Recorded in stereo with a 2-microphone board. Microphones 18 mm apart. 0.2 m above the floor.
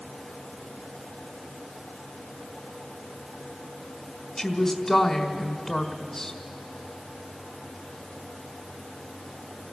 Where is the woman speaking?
25° left (ahead or behind), 1.4 m.